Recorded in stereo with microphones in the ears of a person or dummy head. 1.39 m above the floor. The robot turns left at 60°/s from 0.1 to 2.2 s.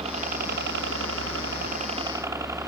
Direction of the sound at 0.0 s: 35° right.